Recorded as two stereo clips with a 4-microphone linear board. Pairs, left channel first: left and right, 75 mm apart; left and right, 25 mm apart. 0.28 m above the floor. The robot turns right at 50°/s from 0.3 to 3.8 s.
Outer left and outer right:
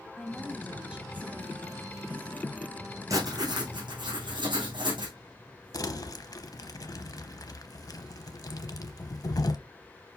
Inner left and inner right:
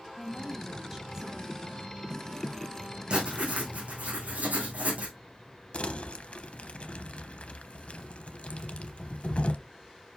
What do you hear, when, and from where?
0.2 s a woman speaking: 165° left, 1.9 m; by 1.5 s 130° right, 1.9 m
3.1 s writing: 135° right, 3 m; by 5.2 s 100° right, 3 m
5.7 s crumpling: 50° left (ahead or behind), 0.8 m